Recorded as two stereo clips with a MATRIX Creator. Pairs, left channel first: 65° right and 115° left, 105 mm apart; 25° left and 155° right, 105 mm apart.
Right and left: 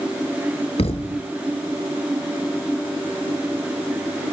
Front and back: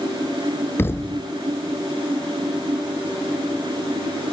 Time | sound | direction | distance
0.8 | a thud | 45° right | 0.7 m